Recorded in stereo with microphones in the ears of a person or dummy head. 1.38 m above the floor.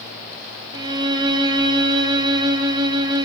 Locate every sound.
0.7 s a violin: 25° right (ahead or behind), 0.6 m